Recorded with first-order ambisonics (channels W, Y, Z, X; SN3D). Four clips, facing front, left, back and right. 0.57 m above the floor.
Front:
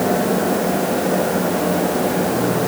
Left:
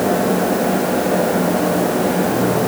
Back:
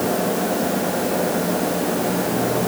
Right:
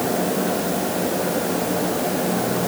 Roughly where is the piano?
I don't hear a piano.